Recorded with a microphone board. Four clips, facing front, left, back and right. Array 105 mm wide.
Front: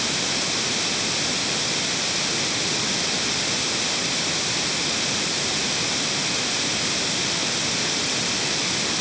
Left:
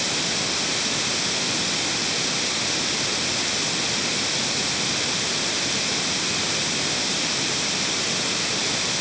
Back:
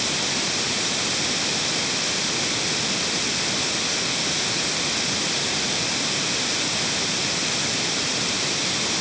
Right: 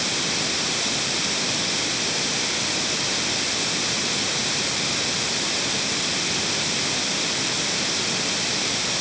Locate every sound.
Only background noise.